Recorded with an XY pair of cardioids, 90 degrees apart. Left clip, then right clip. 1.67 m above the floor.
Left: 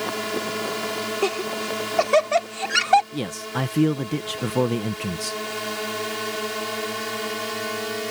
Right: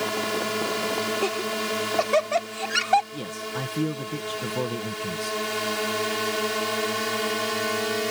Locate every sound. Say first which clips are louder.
0.0 s a drone: even; 5° right; by 8.1 s 15° right
1.2 s laughter: left 1 dB; 30° left
3.1 s a man speaking: left 3 dB; 60° left